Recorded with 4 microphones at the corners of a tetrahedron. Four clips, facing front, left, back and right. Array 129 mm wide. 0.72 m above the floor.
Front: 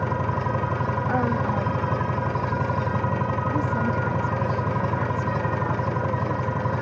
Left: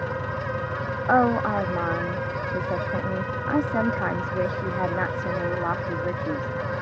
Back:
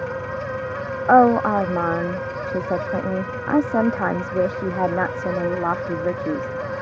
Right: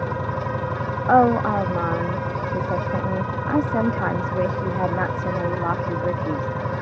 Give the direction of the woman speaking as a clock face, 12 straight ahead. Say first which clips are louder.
Right 4 dB, back 13 dB; 6 o'clock.